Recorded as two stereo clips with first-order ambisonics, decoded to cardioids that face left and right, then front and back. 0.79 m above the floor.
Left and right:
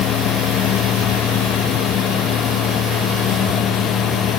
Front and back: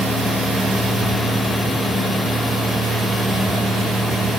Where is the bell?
No bell in this recording.